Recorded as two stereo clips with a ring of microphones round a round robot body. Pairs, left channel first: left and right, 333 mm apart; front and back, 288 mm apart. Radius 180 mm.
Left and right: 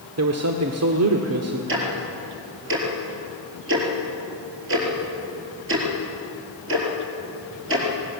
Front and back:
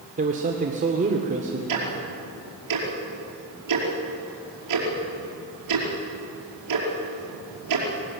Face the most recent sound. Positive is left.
turn(degrees=-145)